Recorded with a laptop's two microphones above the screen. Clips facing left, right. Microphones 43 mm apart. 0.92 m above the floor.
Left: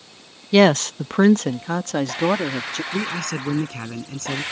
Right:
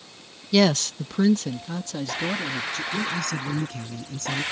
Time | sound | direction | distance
0.5 | a woman speaking | 30° left (ahead or behind) | ?
2.9 | a man speaking | 75° left (ahead or behind) | ?